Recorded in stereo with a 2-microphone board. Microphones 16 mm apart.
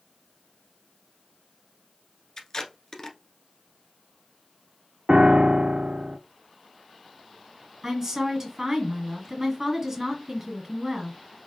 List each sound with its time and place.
2.4 s tape being pulled: 30° left (ahead or behind), 1.1 m
5.1 s a piano: 85° right, 0.5 m
7.8 s a woman speaking: 35° right (ahead or behind), 3 m